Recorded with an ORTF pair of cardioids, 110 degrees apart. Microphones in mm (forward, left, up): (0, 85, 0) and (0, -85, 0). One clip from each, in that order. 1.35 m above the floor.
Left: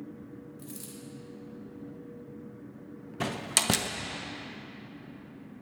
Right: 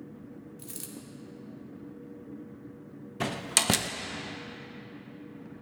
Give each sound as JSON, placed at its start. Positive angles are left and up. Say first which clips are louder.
{"t": 0.6, "sound": "a dropped coin", "louder": "right 1 dB", "azimuth_deg": -35, "distance_m": 1.9}
{"t": 3.2, "sound": "a door slam", "louder": "right 1 dB", "azimuth_deg": -5, "distance_m": 0.7}